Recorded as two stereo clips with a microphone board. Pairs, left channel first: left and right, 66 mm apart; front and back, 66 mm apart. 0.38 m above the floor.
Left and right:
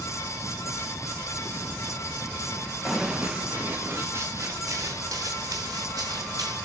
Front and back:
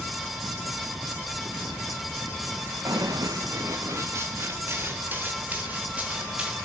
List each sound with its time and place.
2.9 s running footsteps: 175° right, 2 m; by 6.5 s 105° right, 5 m